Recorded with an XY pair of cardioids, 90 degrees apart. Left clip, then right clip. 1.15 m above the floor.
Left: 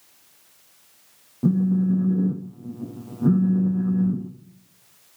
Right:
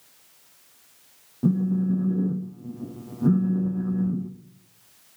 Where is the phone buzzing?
10° left, 1.3 m.